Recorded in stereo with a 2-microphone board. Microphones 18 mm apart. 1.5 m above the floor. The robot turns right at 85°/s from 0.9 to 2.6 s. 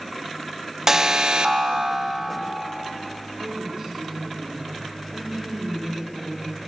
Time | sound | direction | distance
0.9 | an alarm | 155° right | 1.3 m
3.4 | a woman speaking | 70° right (ahead or behind) | 6 m